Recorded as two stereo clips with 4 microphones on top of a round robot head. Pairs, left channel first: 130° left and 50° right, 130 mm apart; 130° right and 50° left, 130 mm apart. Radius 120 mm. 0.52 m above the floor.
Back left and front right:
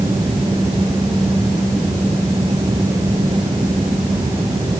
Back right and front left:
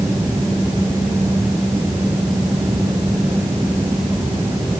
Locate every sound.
Only background noise.